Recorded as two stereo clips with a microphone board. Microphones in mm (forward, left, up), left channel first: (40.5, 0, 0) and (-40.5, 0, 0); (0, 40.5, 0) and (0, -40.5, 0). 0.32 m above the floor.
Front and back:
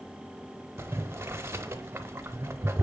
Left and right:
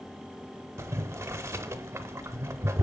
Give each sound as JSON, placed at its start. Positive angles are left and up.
{"t": 0.8, "sound": "boiling", "azimuth_deg": -130, "distance_m": 0.6}